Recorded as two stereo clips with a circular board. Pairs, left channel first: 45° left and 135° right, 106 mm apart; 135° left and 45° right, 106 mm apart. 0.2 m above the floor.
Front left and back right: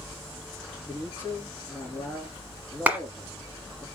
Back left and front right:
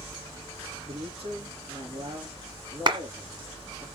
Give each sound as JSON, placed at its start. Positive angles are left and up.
{"t": 0.9, "sound": "a man speaking", "azimuth_deg": -25, "distance_m": 3.5}
{"t": 2.9, "sound": "a clap", "azimuth_deg": -65, "distance_m": 1.4}